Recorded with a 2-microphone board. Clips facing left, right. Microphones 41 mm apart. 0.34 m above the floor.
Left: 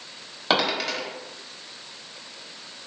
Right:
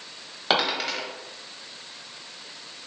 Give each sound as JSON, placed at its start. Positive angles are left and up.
{"t": 0.5, "sound": "a dropped coin", "side_deg": -5, "distance_m": 0.9}